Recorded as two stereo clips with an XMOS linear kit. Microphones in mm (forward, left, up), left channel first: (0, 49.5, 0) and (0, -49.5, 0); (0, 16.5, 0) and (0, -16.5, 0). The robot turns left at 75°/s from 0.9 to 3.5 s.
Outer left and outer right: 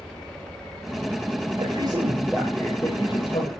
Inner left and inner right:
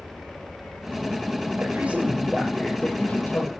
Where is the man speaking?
115° right, 8 m; by 3.5 s 100° left, 8 m.